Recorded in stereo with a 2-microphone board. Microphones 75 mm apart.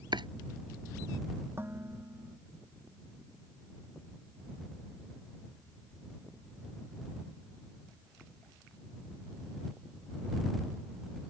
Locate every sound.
0.1 s chopping: 80° right
1.6 s dishes clattering: 30° right (ahead or behind)